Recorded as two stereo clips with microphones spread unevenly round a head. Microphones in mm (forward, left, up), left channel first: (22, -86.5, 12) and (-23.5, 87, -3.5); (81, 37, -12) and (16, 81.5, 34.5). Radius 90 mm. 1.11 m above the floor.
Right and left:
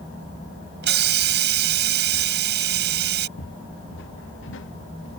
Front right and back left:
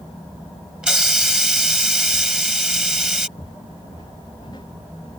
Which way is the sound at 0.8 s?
70° left.